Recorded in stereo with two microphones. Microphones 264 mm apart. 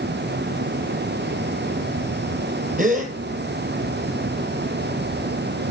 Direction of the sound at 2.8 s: 30° right (ahead or behind).